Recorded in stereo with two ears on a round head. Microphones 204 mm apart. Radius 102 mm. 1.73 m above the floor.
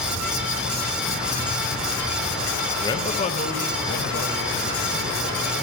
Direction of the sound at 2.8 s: 15° left (ahead or behind).